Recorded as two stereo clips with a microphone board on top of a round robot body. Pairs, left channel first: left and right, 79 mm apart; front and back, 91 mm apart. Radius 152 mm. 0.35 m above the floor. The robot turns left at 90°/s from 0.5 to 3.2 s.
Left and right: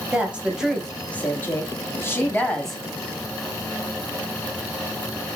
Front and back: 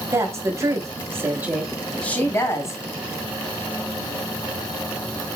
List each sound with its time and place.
0.1 s a woman speaking: 155° right, 1.0 m; by 2.8 s 5° right, 1.0 m